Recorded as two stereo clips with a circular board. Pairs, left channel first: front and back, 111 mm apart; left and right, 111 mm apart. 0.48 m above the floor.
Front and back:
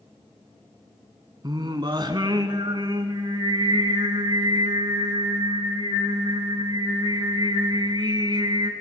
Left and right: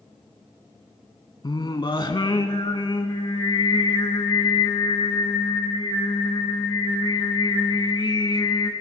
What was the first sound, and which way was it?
Singing, 135° left.